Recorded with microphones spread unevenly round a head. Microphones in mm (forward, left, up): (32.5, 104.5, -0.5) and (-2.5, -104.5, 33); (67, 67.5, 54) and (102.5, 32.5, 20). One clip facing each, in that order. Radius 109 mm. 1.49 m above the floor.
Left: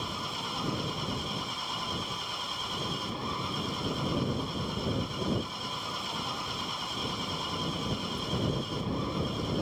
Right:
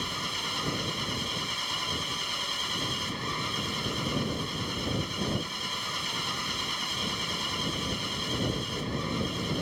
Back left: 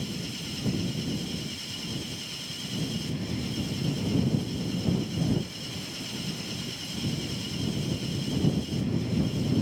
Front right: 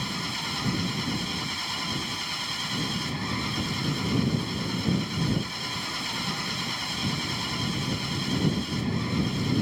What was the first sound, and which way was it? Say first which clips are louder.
An engine running: even, front right 4 dB; 40° right.